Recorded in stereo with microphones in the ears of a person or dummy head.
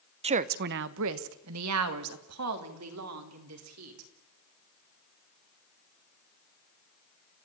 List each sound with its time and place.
0.2 s a woman speaking: 25° right (ahead or behind), 0.7 m; by 4.1 s 85° right, 4 m